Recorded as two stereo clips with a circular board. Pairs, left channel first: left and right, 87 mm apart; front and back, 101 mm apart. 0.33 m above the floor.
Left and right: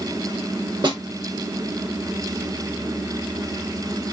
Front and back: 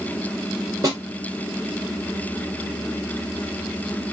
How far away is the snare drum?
About 3.5 m.